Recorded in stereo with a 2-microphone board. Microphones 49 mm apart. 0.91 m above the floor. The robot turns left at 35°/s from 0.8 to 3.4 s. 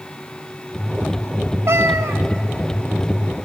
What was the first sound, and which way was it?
A cat meowing, 65° right (ahead or behind).